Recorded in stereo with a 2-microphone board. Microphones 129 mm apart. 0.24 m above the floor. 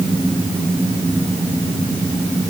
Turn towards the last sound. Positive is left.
No sound to turn to.